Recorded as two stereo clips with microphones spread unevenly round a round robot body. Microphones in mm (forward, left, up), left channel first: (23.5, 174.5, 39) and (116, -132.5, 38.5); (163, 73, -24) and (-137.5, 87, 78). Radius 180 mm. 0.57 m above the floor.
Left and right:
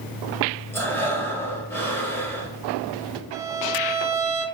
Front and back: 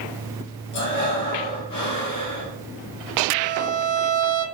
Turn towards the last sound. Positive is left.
turn(degrees=-140)